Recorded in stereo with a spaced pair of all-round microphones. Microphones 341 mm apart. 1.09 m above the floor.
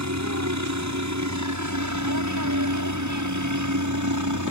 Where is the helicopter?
55° right (ahead or behind); by 4.5 s 60° right (ahead or behind).